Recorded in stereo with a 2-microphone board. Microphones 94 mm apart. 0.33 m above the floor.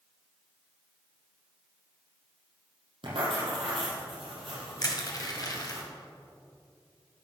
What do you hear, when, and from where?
3.0 s writing: 80° right, 3.5 m
4.8 s crushing: 45° left (ahead or behind), 1.8 m